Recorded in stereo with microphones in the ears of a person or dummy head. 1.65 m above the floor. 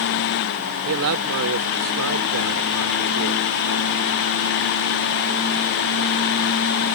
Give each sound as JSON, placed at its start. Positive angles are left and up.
{"t": 0.8, "sound": "a man speaking", "side_deg": -80}